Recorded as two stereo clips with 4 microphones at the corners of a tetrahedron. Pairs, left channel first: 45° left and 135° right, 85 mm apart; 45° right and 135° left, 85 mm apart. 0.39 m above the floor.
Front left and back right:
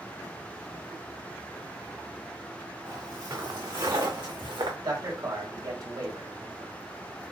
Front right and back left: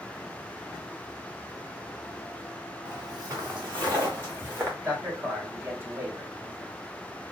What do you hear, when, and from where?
2.9 s footsteps: straight behind, 3 m; by 4.7 s 165° right, 2 m
4.8 s a man speaking: 170° right, 2.5 m